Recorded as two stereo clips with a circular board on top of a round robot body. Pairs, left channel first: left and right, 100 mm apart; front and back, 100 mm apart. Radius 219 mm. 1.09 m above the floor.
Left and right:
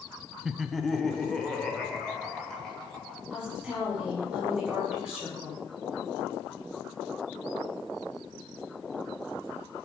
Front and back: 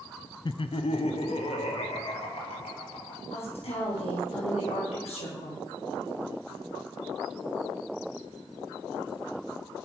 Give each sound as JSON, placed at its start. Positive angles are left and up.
{"t": 0.5, "sound": "laughter", "azimuth_deg": -10, "distance_m": 0.5}
{"t": 3.3, "sound": "a woman speaking", "azimuth_deg": -5, "distance_m": 4.5}